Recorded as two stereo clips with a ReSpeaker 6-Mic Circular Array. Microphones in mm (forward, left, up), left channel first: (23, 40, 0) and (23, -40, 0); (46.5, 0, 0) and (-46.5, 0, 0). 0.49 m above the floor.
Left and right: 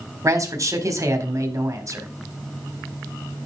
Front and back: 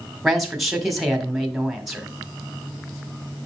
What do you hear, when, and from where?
0.2 s a man speaking: 95° right, 1.7 m